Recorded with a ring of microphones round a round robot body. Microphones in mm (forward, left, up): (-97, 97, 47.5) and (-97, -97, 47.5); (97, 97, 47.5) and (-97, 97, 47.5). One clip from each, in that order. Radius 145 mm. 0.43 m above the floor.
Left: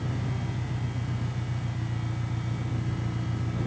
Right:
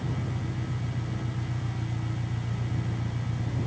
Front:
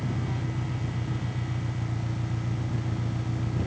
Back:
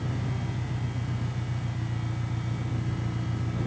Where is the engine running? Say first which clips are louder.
Even, front 1 dB; 5° left.